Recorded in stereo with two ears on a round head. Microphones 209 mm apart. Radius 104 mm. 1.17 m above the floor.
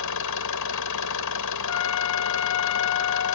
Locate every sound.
0.0 s an engine running: 85° left
1.7 s a trumpet: 60° left (ahead or behind)